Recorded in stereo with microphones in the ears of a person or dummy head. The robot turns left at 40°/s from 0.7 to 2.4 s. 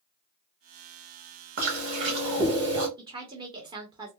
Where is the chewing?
115° right, 1.2 m; by 2.9 s 150° right, 1.2 m.